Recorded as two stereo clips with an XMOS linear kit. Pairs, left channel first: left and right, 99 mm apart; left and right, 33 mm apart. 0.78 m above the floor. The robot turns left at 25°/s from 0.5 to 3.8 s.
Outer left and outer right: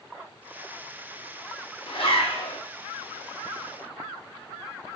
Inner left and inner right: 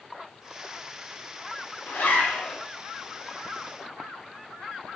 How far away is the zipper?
About 0.6 m.